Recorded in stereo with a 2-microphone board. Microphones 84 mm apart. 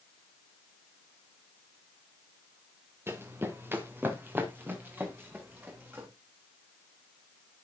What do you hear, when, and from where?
3.1 s running footsteps: 30° right (ahead or behind), 2 m; by 6.1 s 20° right (ahead or behind), 5.5 m